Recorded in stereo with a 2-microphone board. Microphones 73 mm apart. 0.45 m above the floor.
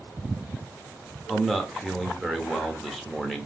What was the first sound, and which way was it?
A man speaking, centre (ahead or behind).